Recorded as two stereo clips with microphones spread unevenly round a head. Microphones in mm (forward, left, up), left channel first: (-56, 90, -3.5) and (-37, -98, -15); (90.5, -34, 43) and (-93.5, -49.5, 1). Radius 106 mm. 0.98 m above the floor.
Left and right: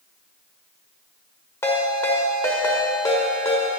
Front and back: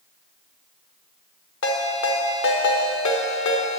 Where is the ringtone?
20° left, 1.2 m.